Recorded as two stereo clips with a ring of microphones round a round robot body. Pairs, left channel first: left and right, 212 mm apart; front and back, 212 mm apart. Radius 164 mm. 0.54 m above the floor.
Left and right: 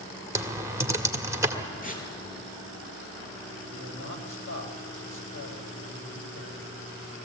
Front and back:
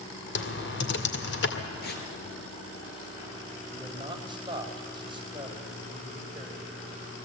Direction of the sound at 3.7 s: 110° left.